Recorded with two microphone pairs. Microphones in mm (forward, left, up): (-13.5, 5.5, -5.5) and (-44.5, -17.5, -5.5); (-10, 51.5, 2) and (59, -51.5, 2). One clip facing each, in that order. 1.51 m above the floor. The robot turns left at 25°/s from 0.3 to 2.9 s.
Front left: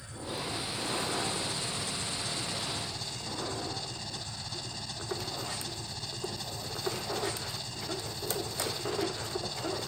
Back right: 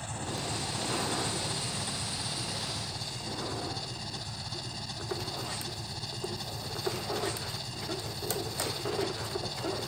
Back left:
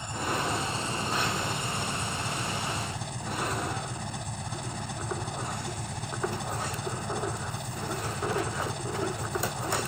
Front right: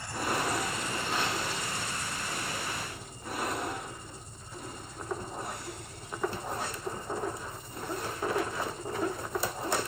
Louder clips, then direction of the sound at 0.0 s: Back right 2 dB, back left 1 dB; 165° right.